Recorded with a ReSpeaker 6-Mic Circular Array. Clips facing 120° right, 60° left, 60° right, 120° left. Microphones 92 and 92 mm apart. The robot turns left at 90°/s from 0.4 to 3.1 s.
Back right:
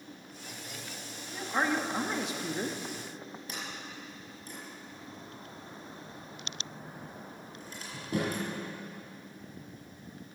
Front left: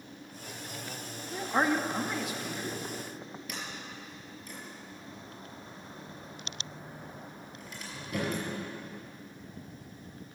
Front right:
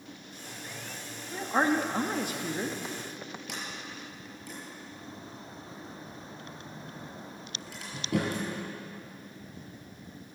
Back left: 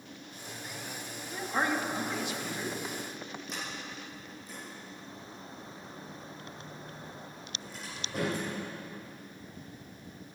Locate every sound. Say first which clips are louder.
1.3 s a man speaking: front left 2 dB, front right 4 dB; 15° left, 1.2 m; by 2.8 s 115° right, 1.2 m
3.5 s a sliding door: even, even; 60° right, 6 m